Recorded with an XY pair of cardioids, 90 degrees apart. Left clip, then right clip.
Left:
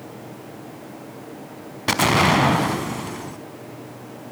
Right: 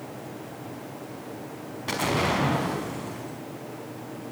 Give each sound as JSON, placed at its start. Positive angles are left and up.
{"t": 1.9, "sound": "an explosion", "azimuth_deg": 70, "distance_m": 4.5}